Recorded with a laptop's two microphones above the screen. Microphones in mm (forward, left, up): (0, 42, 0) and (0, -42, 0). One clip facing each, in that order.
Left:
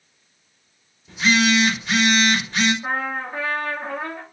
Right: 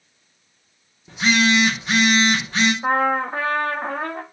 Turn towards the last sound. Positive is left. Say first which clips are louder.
# right 7 dB
turn(degrees=-45)  # may be behind; listen again after turning